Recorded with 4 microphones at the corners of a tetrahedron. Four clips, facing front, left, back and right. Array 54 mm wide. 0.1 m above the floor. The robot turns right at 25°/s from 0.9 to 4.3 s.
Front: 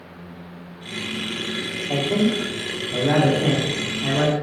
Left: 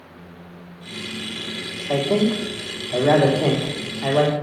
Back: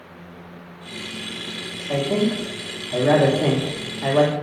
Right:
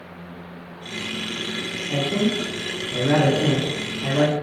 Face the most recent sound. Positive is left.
turn(degrees=170)